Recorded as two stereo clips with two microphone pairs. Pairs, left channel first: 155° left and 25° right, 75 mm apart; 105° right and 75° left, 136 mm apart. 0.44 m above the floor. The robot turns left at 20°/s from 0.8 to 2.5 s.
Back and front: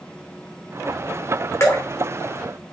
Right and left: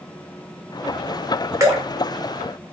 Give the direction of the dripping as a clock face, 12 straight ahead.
8 o'clock.